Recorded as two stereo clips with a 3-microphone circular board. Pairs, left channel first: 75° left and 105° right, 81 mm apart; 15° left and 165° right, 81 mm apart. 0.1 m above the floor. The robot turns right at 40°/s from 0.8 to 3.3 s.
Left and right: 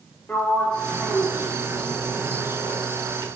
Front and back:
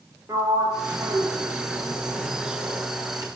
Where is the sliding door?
145° left, 6 m; by 3.3 s 115° right, 6 m.